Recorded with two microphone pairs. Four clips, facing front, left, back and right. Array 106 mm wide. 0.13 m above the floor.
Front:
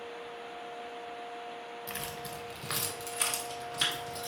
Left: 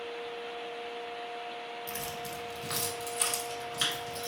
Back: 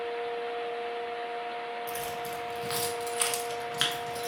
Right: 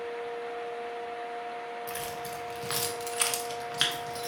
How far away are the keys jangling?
About 0.9 m.